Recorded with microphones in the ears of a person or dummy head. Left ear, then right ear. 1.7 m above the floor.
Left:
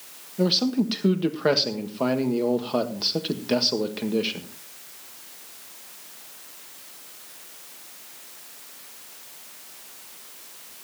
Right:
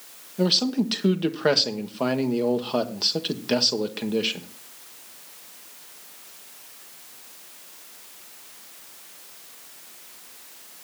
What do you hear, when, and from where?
0.4 s a man speaking: 15° right (ahead or behind), 1.4 m